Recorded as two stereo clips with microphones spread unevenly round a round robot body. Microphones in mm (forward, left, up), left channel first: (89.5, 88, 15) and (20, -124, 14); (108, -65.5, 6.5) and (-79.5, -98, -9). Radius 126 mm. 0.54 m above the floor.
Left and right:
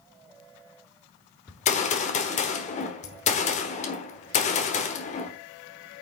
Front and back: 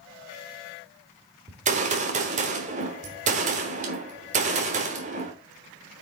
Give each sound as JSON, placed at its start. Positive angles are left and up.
{"t": 1.5, "sound": "a gunshot", "azimuth_deg": 135, "distance_m": 1.1}